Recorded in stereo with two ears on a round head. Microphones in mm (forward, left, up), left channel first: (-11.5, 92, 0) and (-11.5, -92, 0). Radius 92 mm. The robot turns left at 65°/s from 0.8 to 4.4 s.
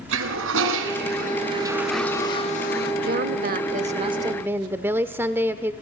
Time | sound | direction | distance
0.1 | a toilet flushing | 105° right | 5 m
3.0 | a woman speaking | 75° right | 1.1 m